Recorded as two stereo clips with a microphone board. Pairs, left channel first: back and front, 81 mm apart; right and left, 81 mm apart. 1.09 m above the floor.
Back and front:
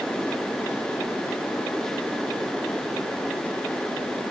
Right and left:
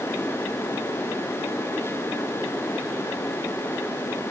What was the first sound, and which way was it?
Only background noise.